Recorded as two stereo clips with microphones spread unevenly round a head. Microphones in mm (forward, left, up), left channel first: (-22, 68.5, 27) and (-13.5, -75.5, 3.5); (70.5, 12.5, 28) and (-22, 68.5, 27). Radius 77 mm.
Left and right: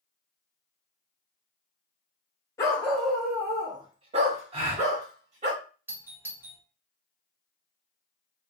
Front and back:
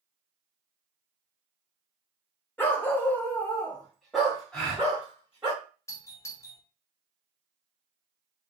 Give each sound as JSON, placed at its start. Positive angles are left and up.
{"t": 2.6, "sound": "a dog barking", "azimuth_deg": 35, "distance_m": 0.7}
{"t": 4.5, "sound": "a gasp", "azimuth_deg": -110, "distance_m": 1.1}
{"t": 5.9, "sound": "a doorbell", "azimuth_deg": -50, "distance_m": 0.6}